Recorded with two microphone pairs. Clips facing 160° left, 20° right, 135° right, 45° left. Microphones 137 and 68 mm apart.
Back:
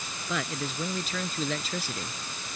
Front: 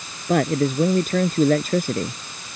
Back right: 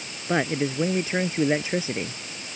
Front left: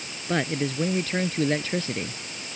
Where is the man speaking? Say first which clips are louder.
Front 14 dB, back right 2 dB; 60° right.